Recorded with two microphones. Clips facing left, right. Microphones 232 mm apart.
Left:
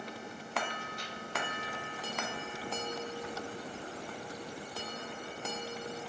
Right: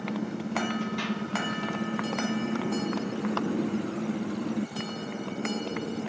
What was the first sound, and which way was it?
A motorcycle, 75° right (ahead or behind).